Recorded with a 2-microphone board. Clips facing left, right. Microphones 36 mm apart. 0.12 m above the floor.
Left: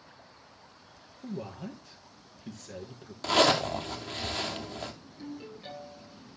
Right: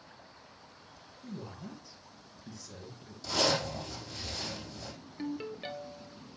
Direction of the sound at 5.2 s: 50° right (ahead or behind).